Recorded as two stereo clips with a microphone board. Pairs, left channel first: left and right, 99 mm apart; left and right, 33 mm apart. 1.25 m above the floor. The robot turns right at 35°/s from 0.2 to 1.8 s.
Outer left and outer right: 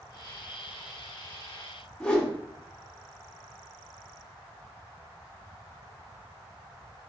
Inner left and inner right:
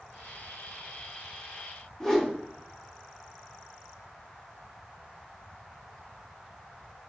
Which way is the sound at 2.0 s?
10° left (ahead or behind).